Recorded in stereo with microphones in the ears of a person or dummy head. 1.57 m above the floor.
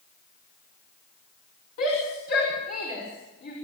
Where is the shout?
60° left (ahead or behind), 6.5 m.